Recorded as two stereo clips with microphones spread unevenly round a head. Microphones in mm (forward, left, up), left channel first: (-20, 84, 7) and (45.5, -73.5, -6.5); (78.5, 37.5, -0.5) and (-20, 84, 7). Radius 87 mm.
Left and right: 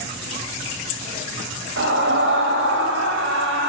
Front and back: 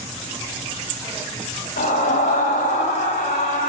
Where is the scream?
50° right, 8 m; by 3.7 s 60° right, 6.5 m.